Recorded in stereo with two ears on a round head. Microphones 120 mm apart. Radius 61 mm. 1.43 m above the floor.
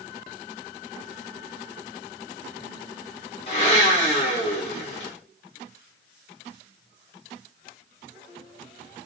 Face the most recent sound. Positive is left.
turn(degrees=40)  # may be behind; listen again after turning